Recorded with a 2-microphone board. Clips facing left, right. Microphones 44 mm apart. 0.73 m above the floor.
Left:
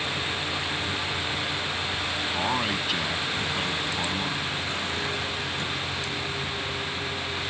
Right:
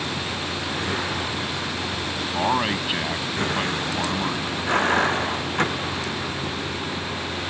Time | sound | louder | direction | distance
0.0 | a vehicle | right 1 dB | 55° right (ahead or behind) | ?
2.3 | a man speaking | right 6 dB | 25° right (ahead or behind) | ?